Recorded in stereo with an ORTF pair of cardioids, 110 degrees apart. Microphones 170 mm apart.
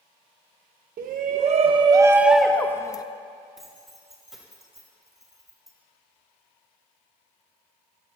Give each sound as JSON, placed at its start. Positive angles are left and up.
{"t": 1.0, "sound": "a shout", "azimuth_deg": -65, "distance_m": 1.1}
{"t": 3.6, "sound": "keys jangling", "azimuth_deg": 0, "distance_m": 4.5}